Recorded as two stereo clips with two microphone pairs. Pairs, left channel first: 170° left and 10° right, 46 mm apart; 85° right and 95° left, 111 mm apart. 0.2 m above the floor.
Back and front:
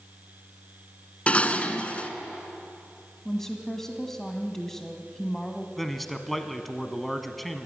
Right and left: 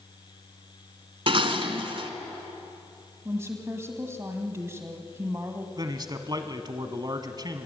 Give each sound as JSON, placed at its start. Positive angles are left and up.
{"t": 1.3, "sound": "dishes clattering", "azimuth_deg": 115, "distance_m": 1.2}
{"t": 3.2, "sound": "a woman speaking", "azimuth_deg": 100, "distance_m": 1.5}
{"t": 5.8, "sound": "a man speaking", "azimuth_deg": 85, "distance_m": 1.3}